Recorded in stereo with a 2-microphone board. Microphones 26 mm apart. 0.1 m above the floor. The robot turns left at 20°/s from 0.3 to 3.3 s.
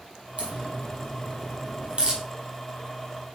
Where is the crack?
60° right (ahead or behind), 3 m; by 2.2 s 35° right (ahead or behind), 3 m.